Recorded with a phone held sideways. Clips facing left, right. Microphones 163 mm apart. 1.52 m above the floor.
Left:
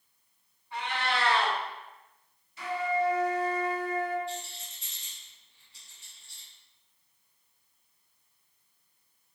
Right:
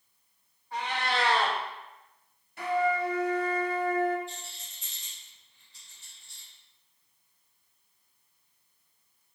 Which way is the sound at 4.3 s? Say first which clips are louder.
Left 6 dB; 65° left (ahead or behind).